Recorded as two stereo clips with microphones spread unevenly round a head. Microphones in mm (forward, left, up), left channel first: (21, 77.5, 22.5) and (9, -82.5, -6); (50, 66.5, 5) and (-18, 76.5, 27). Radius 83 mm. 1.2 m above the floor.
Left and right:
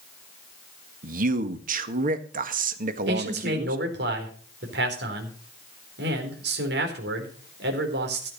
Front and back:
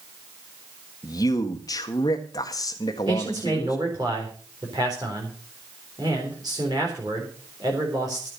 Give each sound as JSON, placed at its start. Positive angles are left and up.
{"t": 1.0, "sound": "a man speaking", "azimuth_deg": -60, "distance_m": 1.5}
{"t": 3.1, "sound": "a man speaking", "azimuth_deg": -120, "distance_m": 4.0}